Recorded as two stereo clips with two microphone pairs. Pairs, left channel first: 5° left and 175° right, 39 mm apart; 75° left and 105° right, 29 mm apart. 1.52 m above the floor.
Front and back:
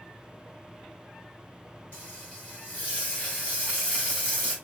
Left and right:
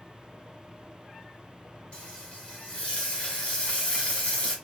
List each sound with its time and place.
1.9 s frying: 40° left, 2 m